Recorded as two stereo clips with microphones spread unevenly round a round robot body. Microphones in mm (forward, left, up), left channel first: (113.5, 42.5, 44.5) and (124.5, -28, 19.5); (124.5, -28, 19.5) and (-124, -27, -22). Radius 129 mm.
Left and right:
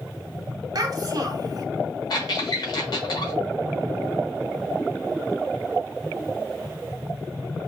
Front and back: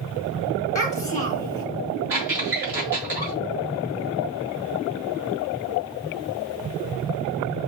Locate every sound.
0.8 s a child speaking: 65° right, 1.2 m
2.1 s a squeak: 115° left, 1.1 m